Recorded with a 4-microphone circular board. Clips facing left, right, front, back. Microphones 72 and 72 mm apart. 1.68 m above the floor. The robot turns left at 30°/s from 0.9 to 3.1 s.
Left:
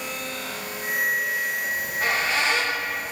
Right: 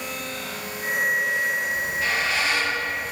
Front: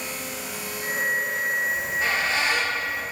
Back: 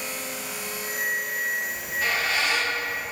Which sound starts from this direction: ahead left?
A squeak, at 1.7 s.